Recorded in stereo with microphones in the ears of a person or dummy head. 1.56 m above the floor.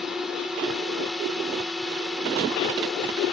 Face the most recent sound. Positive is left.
turn(degrees=5)  # may be behind; listen again after turning